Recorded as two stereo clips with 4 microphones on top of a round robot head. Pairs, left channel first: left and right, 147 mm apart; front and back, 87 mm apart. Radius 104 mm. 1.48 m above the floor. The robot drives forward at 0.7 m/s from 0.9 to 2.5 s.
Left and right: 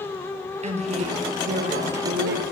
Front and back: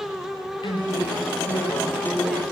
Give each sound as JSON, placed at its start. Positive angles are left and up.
{"t": 0.6, "sound": "a woman speaking", "azimuth_deg": -45, "distance_m": 1.4}